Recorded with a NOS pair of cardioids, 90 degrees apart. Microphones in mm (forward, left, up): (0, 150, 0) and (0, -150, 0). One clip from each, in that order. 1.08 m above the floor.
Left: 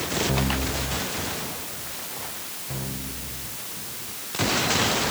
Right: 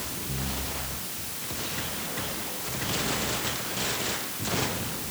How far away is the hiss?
I don't hear a hiss.